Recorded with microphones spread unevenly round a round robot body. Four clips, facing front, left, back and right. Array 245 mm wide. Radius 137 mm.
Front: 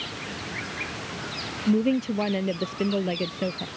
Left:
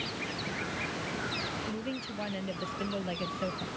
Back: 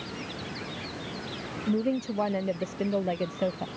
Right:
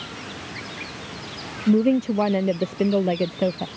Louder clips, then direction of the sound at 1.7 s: Right 18 dB, front 5 dB; 80° right.